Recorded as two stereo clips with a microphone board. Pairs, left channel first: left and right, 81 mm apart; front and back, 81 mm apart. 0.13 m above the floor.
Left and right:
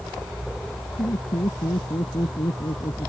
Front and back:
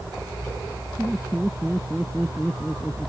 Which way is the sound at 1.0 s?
85° left.